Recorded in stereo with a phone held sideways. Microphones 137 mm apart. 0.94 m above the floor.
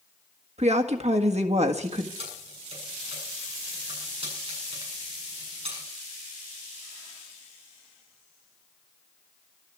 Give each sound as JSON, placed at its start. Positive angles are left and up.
{"t": 0.6, "sound": "a woman speaking", "side_deg": -55, "distance_m": 1.6}
{"t": 2.2, "sound": "keys jangling", "side_deg": -45, "distance_m": 7.5}